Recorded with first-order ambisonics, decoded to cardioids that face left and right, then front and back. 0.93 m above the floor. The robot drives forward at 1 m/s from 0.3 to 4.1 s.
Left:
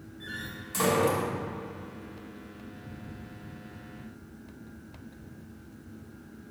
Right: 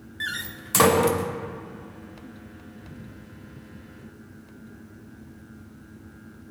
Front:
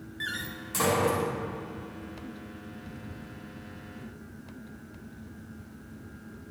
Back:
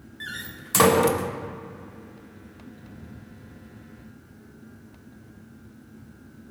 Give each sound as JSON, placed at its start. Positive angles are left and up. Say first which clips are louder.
{"t": 0.2, "sound": "a door slam", "louder": "right 8 dB, front 1 dB", "azimuth_deg": -80, "distance_m": 0.5}